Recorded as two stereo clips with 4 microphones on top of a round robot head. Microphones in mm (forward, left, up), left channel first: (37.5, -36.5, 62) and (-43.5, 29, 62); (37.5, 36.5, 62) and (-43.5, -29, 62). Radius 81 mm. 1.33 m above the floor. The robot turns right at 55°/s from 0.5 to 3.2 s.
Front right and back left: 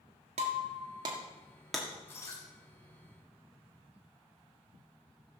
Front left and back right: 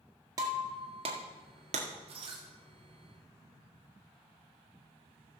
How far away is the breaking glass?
About 1.6 m.